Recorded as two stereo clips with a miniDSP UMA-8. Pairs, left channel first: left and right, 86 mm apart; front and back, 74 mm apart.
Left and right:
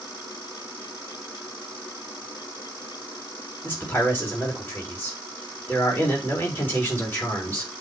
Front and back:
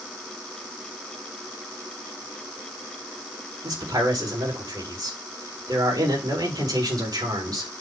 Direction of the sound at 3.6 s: 160° left.